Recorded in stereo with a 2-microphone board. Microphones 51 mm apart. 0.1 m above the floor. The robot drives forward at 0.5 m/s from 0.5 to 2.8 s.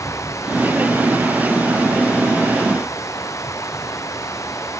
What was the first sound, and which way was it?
Running water, 65° left (ahead or behind).